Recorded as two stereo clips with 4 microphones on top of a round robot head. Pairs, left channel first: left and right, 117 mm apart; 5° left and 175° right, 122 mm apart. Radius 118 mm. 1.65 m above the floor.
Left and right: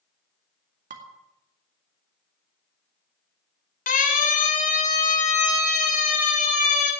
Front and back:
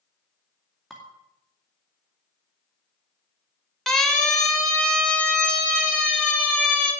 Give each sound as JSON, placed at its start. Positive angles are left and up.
{"t": 0.9, "sound": "dishes clattering", "azimuth_deg": -85, "distance_m": 2.0}
{"t": 3.9, "sound": "a siren", "azimuth_deg": 90, "distance_m": 3.5}